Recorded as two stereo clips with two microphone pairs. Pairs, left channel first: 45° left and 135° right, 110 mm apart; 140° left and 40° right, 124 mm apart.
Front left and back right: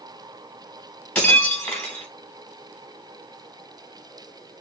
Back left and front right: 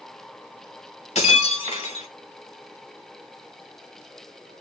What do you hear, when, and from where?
1.1 s breaking glass: 115° left, 1.4 m